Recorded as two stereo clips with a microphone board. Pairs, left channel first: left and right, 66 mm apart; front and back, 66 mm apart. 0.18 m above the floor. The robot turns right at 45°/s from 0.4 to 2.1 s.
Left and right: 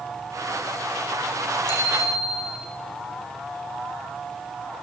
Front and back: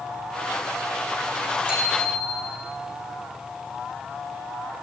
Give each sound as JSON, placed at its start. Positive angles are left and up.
{"t": 1.7, "sound": "a bicycle bell", "azimuth_deg": 105, "distance_m": 8.0}